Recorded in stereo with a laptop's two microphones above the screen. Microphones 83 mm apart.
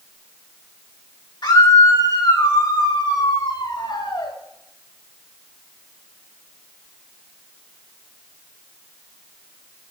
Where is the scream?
65° left (ahead or behind), 3 m; by 4.3 s 80° left, 5 m.